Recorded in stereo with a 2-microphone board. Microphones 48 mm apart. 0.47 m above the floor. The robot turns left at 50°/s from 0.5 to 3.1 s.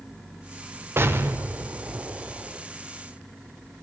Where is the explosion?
75° right, 0.9 m; by 2.6 s 160° right, 0.9 m.